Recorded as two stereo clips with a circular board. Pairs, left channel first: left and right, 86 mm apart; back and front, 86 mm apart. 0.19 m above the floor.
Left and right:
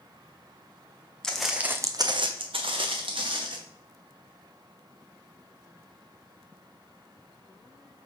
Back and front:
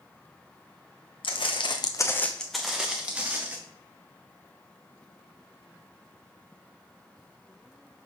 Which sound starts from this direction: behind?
Footsteps, at 1.2 s.